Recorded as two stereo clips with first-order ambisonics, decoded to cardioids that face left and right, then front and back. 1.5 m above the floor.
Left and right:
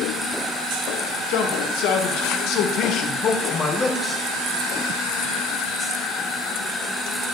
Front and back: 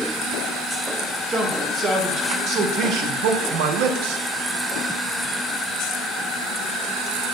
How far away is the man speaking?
About 2.5 m.